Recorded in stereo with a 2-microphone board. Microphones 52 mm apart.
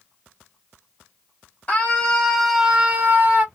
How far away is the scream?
About 1.1 m.